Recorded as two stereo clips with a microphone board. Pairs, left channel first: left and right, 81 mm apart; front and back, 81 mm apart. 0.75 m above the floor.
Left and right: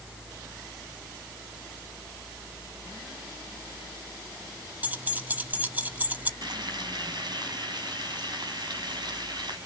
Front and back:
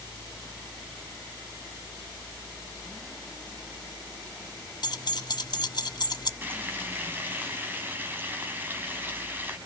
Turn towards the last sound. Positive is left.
turn(degrees=-115)